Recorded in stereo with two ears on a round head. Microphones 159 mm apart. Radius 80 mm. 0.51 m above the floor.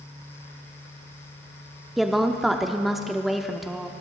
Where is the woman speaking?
Centre (ahead or behind), 0.7 m.